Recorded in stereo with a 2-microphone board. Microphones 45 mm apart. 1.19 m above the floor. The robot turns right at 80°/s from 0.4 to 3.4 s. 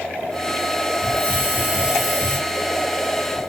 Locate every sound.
1.0 s a hiss: 85° right, 1.3 m; by 2.4 s 25° left, 1.3 m